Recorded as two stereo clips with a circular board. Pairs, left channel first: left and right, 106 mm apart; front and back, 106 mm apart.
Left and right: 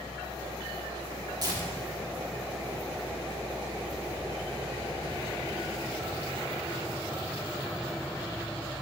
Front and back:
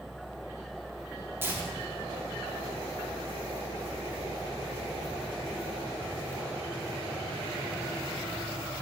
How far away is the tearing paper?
About 1.5 m.